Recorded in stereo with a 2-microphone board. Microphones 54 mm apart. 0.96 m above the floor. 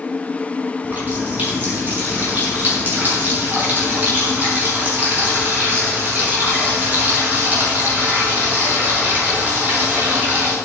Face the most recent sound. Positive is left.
turn(degrees=-35)  # may be behind; listen again after turning